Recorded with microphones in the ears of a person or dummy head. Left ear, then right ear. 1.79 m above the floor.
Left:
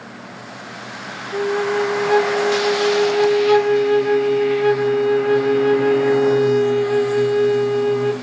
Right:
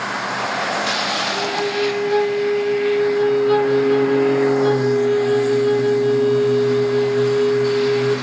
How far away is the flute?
About 0.5 m.